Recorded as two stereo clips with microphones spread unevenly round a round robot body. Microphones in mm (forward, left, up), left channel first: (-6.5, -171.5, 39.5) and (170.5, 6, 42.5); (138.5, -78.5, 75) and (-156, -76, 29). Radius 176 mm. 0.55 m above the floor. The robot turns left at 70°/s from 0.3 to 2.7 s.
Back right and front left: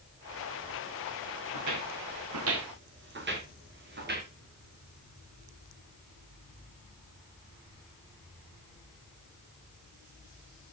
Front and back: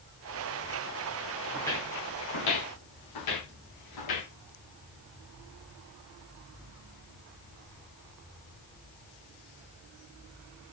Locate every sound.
1.5 s footsteps: 90° left, 4 m; by 4.3 s 5° right, 7 m